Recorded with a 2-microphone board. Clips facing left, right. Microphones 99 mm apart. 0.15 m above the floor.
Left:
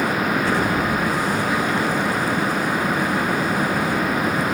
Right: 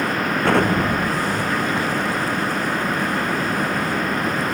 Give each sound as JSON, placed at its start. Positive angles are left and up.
{"t": 0.4, "sound": "an explosion", "side_deg": -65}